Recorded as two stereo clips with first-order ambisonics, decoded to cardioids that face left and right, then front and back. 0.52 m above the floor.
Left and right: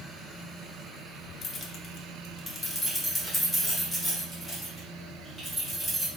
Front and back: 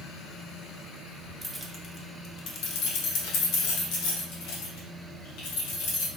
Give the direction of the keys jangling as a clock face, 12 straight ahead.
9 o'clock.